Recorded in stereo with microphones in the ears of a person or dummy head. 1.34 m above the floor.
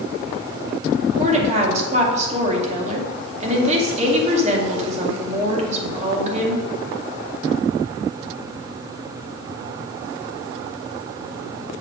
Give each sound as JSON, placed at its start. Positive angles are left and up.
{"t": 1.2, "sound": "a woman speaking", "side_deg": -40, "distance_m": 2.0}